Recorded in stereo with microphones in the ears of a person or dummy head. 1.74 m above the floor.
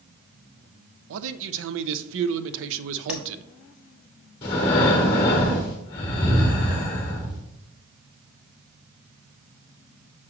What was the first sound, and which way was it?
A man speaking, 70° right (ahead or behind).